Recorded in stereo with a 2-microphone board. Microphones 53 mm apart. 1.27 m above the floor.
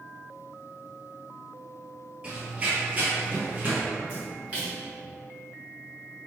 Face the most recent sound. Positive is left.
turn(degrees=-25)  # may be behind; listen again after turning